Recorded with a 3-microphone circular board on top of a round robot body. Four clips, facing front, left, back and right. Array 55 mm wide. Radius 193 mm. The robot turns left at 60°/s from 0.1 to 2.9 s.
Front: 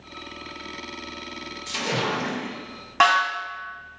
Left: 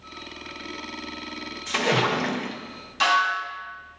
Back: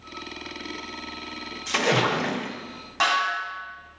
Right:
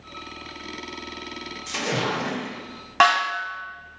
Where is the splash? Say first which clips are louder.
Left 4 dB, back 4 dB; 155° left, 1.0 m; by 2.5 s 100° left, 1.0 m.